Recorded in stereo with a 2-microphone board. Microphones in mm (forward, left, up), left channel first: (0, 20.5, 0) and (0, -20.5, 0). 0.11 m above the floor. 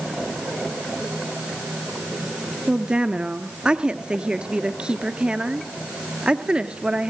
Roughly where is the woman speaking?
Right.